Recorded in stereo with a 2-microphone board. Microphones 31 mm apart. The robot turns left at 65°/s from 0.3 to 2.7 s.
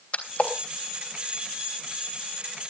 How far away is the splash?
About 3 m.